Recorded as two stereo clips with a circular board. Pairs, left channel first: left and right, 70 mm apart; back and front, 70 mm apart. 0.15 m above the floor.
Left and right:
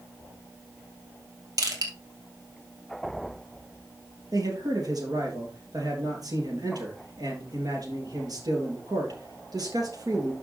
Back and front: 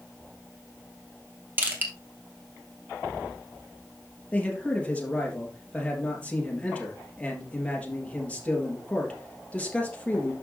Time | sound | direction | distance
1.6 | crushing | 60° right | 2.5 m
4.3 | a man speaking | 110° right | 3.5 m